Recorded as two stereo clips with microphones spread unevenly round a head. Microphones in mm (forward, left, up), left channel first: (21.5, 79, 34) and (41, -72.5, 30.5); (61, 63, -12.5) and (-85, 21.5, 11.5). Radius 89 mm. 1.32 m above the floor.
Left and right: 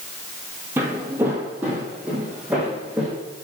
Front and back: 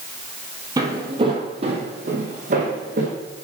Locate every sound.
0.8 s footsteps: 155° right, 1.5 m; by 3.1 s 170° right, 2.5 m